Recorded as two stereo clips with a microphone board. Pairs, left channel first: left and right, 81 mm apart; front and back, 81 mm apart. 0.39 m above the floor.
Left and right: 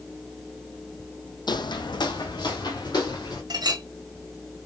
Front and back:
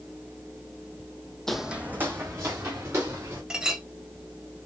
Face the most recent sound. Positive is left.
turn(degrees=-100)